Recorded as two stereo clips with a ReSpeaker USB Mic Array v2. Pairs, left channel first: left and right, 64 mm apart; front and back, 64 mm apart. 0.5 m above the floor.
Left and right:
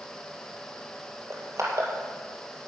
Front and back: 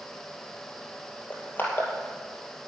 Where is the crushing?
55° right, 2.5 m.